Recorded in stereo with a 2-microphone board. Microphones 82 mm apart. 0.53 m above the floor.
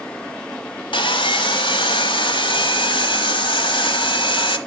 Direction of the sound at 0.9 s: 85° left.